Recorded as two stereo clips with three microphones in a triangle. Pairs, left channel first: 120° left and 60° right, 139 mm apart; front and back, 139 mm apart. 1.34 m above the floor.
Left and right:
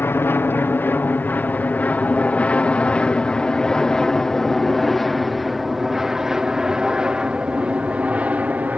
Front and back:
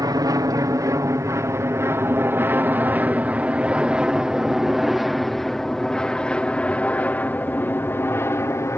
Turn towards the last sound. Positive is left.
turn(degrees=-5)